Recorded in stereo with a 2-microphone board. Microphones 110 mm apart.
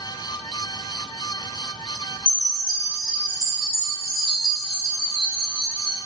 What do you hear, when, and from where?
2.2 s a chime: 35° left (ahead or behind), 1.1 m